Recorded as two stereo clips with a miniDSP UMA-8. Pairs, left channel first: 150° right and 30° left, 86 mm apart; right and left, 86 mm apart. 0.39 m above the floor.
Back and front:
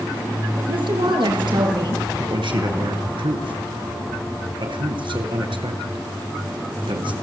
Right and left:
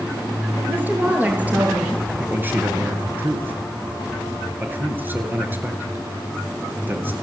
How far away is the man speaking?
About 6 m.